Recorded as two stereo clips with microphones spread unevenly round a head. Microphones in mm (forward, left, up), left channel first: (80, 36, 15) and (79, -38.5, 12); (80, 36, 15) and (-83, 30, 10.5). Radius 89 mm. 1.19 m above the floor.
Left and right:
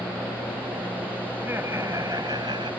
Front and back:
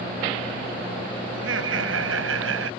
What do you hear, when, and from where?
1.3 s laughter: 175° right; by 2.7 s 155° right